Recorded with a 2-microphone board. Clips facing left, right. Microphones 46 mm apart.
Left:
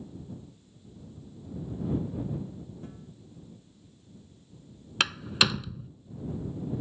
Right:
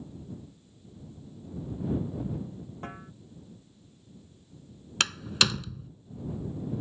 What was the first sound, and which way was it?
A snare drum, 55° right (ahead or behind).